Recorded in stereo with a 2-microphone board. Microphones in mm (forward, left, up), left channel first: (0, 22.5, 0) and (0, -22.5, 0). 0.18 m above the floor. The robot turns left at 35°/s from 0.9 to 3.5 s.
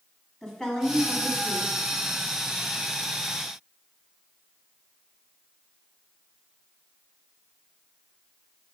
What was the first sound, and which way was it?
A woman speaking, 15° left (ahead or behind).